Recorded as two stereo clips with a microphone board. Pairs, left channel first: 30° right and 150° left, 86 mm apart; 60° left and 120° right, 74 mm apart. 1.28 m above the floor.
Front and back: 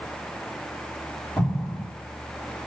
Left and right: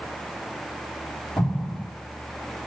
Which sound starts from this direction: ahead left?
An explosion, at 1.4 s.